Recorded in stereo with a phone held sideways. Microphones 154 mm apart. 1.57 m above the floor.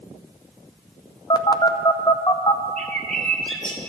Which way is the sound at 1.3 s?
25° left (ahead or behind).